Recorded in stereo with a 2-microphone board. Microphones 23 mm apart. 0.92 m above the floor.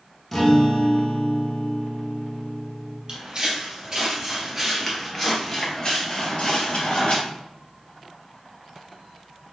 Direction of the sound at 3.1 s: 35° right (ahead or behind).